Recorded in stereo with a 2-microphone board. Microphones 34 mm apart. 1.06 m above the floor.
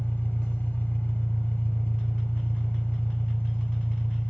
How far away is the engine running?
About 1.5 m.